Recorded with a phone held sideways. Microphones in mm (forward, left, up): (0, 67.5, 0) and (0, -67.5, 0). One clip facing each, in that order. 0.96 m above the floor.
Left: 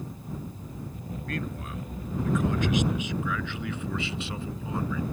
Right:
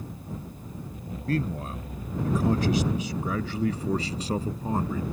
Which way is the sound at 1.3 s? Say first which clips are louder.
Right 7 dB; 30° right (ahead or behind).